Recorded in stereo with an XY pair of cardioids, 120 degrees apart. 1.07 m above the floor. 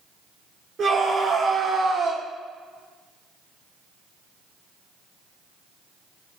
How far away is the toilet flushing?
I don't hear a toilet flushing.